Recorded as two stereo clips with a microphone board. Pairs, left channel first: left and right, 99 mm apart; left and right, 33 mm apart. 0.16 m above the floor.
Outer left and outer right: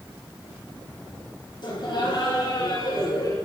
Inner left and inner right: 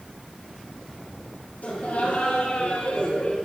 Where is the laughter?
50° left (ahead or behind), 4.5 m; by 3.4 s 40° left (ahead or behind), 3.5 m.